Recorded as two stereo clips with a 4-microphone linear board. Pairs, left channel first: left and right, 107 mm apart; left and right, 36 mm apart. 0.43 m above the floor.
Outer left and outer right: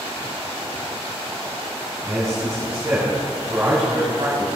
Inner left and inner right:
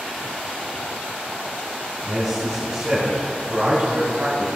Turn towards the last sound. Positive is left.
turn(degrees=-45)  # may be behind; listen again after turning